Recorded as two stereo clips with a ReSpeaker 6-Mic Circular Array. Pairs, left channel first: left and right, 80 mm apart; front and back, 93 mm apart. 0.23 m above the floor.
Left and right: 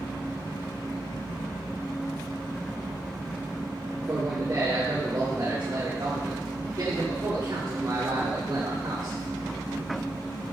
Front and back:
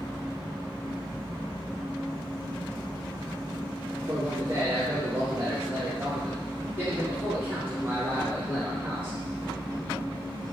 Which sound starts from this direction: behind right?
A man speaking, at 4.0 s.